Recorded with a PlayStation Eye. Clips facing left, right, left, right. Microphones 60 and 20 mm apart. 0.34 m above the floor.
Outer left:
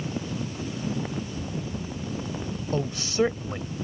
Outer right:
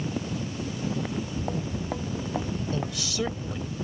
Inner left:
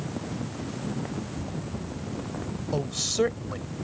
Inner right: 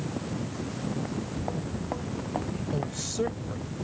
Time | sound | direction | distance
1.1 | footsteps | 55° right (ahead or behind) | ?
2.7 | a woman speaking | 35° left (ahead or behind) | ?